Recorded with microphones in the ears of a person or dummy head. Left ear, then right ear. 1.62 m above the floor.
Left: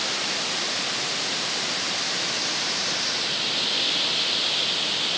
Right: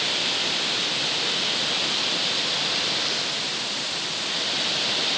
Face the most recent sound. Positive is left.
No sound to turn to.